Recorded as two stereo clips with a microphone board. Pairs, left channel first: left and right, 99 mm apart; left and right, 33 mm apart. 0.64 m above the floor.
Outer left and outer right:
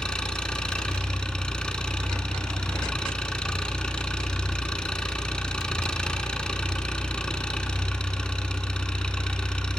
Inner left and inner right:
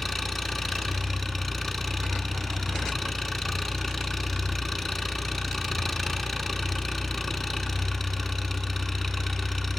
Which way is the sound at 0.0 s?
10° left (ahead or behind).